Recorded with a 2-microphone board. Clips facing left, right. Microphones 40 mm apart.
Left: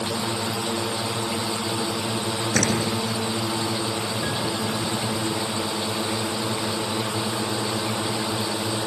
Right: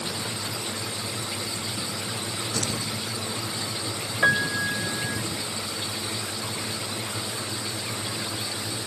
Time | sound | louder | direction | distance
0.0 | a drone | left 6 dB | 85° left | ?
2.5 | a door slam | left 9 dB | 85° left | ?
4.2 | a piano | right 4 dB | 60° right (ahead or behind) | ?